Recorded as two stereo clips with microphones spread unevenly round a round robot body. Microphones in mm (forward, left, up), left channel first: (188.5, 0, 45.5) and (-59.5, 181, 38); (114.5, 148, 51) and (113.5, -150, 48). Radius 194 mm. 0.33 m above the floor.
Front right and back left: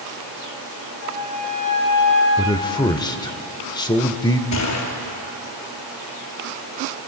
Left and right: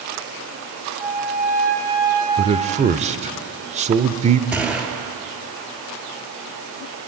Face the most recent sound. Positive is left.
turn(degrees=-5)